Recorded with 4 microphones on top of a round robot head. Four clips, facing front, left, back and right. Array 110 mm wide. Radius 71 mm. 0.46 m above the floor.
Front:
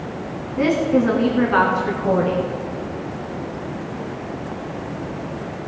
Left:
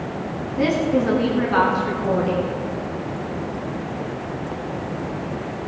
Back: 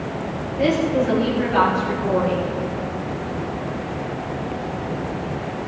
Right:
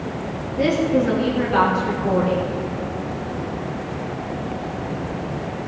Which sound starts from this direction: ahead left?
A woman speaking, at 0.6 s.